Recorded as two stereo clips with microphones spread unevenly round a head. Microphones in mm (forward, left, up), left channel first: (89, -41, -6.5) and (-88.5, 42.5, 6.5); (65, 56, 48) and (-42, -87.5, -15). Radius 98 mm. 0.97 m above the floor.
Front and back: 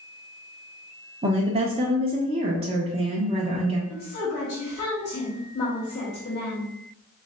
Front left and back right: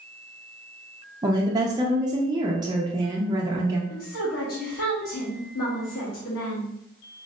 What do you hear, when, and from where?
1.2 s a woman speaking: 150° right, 0.6 m
3.9 s a woman speaking: 30° left, 1.5 m